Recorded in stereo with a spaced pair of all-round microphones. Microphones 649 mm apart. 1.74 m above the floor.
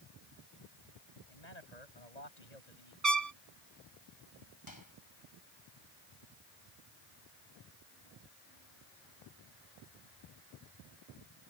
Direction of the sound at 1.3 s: 80° left.